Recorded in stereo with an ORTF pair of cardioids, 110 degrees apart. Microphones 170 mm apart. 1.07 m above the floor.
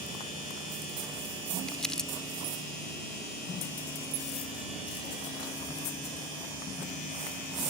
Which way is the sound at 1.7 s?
5° left.